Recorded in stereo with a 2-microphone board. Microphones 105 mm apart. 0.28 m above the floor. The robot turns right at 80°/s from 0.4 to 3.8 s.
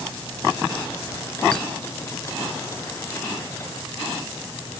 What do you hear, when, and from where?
1.5 s a clink: 15° left (ahead or behind), 1.2 m; by 1.7 s 5° left (ahead or behind), 1.2 m